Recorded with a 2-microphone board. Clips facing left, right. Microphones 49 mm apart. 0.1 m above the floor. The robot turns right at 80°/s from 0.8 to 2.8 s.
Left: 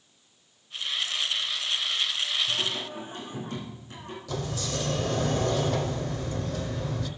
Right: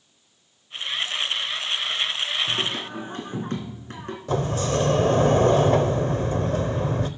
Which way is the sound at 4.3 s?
45° right (ahead or behind).